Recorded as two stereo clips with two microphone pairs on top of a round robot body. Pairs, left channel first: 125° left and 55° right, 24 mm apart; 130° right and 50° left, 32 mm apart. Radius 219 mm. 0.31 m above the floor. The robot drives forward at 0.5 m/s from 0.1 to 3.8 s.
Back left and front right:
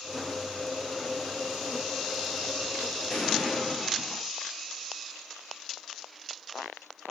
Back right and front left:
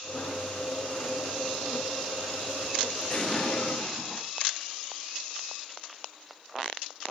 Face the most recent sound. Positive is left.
turn(degrees=165)